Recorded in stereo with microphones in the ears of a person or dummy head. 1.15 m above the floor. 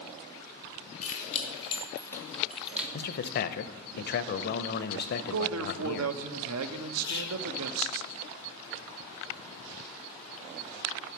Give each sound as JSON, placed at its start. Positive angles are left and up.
{"t": 1.0, "sound": "keys jangling", "side_deg": 45, "distance_m": 2.0}
{"t": 2.9, "sound": "a man speaking", "side_deg": 50, "distance_m": 0.7}
{"t": 5.3, "sound": "a man speaking", "side_deg": -80, "distance_m": 0.8}
{"t": 7.0, "sound": "whispering", "side_deg": 60, "distance_m": 0.8}